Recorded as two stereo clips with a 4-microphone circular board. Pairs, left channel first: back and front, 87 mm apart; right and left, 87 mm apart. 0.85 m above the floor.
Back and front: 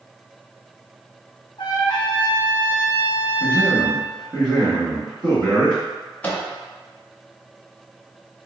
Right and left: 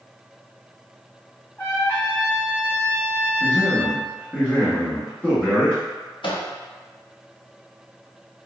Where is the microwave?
105° right, 0.7 m.